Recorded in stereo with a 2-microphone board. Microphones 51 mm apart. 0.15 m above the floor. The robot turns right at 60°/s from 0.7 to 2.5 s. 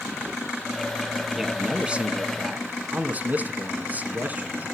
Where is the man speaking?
170° right, 1.6 m; by 4.8 s 100° right, 1.6 m.